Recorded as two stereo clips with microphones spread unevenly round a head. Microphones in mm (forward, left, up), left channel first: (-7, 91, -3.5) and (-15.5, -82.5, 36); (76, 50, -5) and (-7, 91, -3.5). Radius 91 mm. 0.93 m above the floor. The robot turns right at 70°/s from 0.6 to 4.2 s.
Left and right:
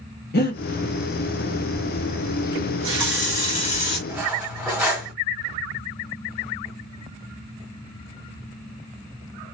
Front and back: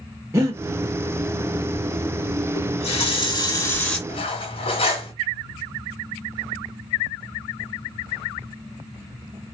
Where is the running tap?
45° right, 1.7 m; by 4.0 s 55° left, 1.7 m.